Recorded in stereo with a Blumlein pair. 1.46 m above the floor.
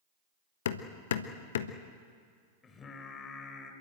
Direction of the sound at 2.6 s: 20° left.